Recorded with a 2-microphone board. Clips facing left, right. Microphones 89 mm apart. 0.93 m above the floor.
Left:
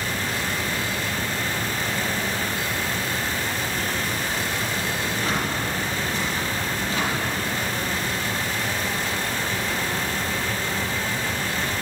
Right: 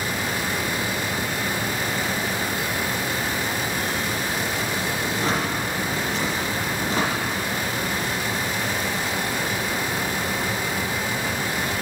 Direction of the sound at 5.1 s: 35° right (ahead or behind).